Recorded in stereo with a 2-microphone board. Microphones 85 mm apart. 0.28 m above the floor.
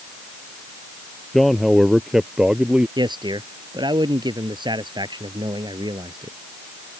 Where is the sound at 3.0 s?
65° right (ahead or behind).